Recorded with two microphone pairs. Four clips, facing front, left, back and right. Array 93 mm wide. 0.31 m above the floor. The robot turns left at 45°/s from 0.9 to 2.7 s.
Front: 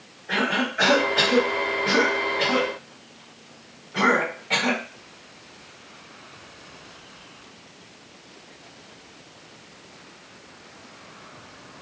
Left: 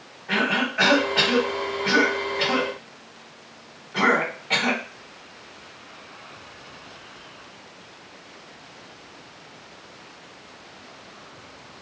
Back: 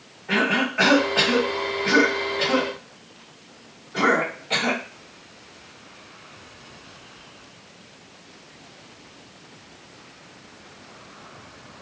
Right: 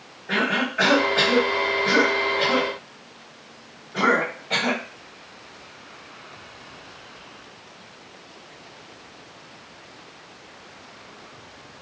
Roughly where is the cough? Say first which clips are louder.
Even, back 2 dB; behind left.